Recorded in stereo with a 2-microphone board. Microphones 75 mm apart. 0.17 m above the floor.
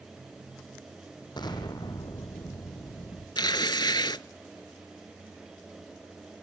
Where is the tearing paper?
75° left (ahead or behind), 0.5 m.